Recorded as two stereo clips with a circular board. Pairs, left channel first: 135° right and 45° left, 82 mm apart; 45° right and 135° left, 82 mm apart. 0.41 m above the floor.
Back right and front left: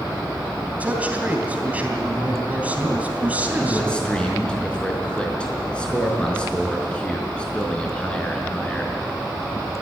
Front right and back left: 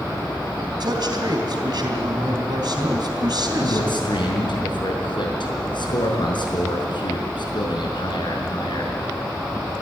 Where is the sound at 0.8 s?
115° left, 3 m.